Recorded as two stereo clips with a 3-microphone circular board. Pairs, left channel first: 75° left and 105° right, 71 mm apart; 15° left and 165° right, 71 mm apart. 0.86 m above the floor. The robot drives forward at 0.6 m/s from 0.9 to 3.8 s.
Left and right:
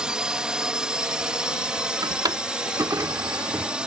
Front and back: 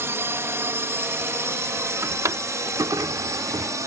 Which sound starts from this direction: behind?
A drone, at 0.0 s.